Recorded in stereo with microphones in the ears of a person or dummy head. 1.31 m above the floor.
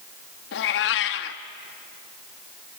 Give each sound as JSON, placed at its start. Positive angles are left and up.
{"t": 0.5, "sound": "a cat meowing", "side_deg": 65, "distance_m": 1.1}